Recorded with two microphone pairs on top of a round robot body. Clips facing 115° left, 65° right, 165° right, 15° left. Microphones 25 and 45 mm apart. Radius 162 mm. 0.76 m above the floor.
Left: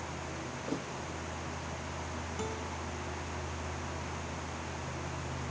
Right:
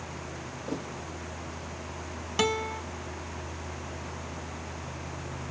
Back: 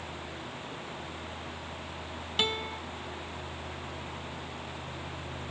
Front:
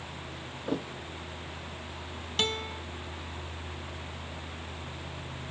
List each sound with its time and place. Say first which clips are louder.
0.7 s a thud: right 3 dB, front 8 dB; 15° left
2.4 s a guitar: right 14 dB, even; 85° right